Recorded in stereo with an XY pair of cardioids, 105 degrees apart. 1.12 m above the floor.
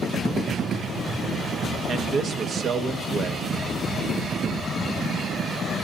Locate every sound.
1.9 s a man speaking: 50° right, 1.3 m